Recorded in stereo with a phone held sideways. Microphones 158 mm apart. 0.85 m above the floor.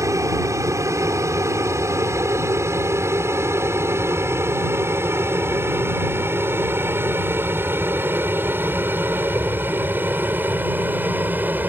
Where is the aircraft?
20° right (ahead or behind); by 11.7 s 10° right (ahead or behind).